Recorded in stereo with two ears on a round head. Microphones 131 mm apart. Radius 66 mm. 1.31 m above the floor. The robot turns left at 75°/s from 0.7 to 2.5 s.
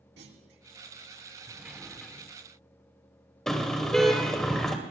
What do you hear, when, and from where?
0.2 s a clunk: 90° right, 2 m
1.5 s a sliding door: 15° right (ahead or behind), 1.0 m; by 2.3 s 10° left (ahead or behind), 1.0 m
3.5 s a car horn: 5° left (ahead or behind), 2.5 m